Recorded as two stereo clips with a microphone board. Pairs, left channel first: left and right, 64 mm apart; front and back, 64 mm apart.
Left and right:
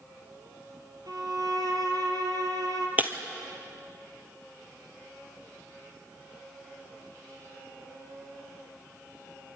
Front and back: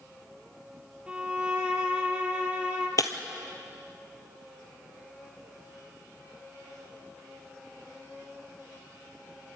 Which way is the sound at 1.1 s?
105° right.